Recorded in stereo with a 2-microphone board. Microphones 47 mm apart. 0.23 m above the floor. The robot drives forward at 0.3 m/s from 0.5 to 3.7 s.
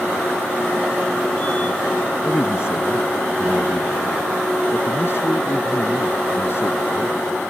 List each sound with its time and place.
2.2 s a man speaking: 60° left (ahead or behind); by 7.2 s 55° left (ahead or behind)